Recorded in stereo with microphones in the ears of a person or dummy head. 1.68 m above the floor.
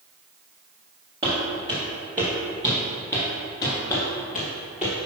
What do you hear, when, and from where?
1.2 s footsteps: 20° right (ahead or behind), 2 m; by 3.8 s 15° left (ahead or behind), 1.7 m
3.9 s footsteps: 5° left (ahead or behind), 1.8 m; by 5.0 s 5° right (ahead or behind), 2.5 m